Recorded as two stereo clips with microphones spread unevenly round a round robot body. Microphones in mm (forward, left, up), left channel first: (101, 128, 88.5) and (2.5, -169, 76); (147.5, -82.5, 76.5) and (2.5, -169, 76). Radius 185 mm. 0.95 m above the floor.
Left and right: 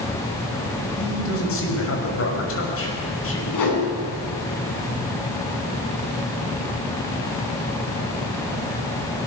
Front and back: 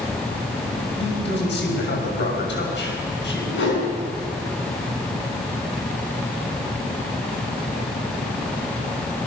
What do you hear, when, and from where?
1.0 s a man speaking: 25° left, 6.5 m
3.5 s a whoosh: 50° left, 6.5 m